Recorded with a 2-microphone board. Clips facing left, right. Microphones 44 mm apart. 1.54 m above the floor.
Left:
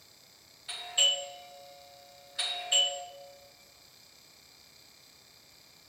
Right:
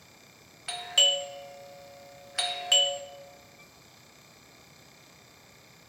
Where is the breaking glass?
No breaking glass in this recording.